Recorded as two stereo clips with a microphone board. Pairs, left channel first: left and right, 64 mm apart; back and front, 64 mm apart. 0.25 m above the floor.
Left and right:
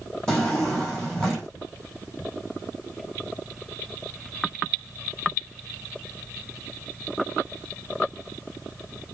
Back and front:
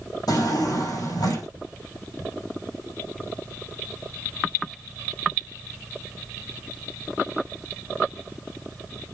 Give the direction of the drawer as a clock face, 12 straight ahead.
6 o'clock.